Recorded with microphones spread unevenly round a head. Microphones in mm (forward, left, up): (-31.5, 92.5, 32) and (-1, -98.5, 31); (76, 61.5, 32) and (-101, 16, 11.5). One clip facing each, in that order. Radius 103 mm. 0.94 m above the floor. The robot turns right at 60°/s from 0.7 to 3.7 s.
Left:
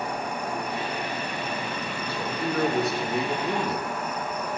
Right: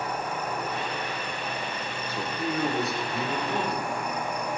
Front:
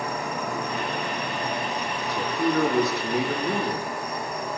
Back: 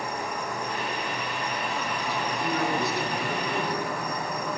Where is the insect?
25° left, 5 m; by 4.6 s 155° right, 5 m.